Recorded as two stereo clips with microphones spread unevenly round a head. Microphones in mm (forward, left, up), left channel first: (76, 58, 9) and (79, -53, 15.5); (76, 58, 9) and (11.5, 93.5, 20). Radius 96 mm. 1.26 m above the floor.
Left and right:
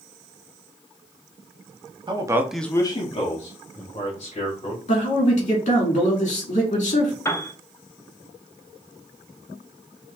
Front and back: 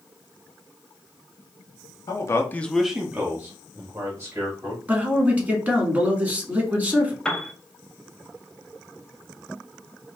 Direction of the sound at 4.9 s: 85° left.